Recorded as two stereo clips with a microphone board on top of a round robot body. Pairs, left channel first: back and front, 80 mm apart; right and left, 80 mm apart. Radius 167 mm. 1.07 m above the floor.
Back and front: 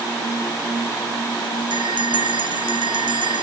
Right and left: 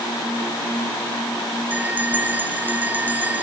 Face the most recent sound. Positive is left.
turn(degrees=20)